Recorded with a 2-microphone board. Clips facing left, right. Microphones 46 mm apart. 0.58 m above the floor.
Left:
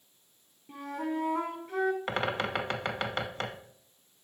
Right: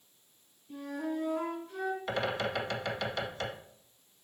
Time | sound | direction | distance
0.7 | a flute | 75° left (ahead or behind) | 1.2 m
2.1 | a bird | 45° left (ahead or behind) | 1.0 m